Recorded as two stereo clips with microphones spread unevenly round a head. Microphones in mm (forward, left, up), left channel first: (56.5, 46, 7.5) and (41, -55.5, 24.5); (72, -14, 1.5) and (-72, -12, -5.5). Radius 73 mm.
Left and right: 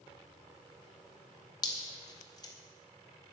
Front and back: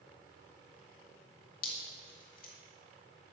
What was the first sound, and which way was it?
Dripping, 35° left.